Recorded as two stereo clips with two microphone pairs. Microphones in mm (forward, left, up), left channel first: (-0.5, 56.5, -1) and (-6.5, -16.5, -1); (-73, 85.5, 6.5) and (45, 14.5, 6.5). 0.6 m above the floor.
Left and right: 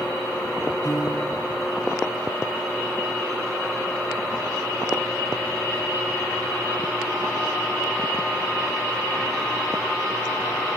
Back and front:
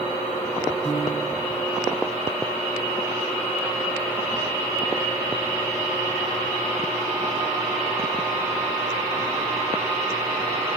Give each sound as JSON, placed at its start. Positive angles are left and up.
{"t": 0.8, "sound": "a piano", "azimuth_deg": 115, "distance_m": 2.5}